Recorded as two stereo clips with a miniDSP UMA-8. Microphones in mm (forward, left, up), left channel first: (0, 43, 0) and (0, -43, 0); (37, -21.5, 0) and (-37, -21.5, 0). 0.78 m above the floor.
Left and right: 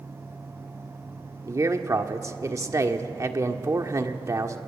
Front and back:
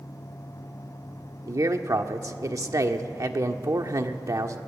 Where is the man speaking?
140° right, 1.6 m.